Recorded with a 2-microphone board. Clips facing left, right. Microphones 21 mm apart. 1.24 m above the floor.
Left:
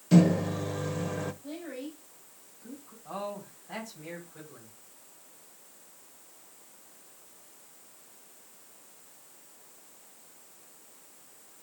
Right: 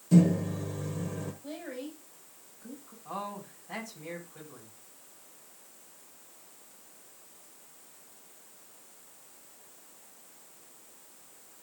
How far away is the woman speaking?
About 4.5 m.